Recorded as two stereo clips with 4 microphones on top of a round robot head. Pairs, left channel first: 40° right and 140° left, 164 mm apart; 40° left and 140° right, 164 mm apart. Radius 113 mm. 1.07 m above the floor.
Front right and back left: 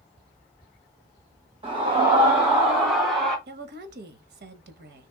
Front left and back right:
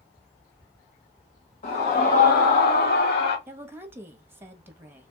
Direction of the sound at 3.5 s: 145° left.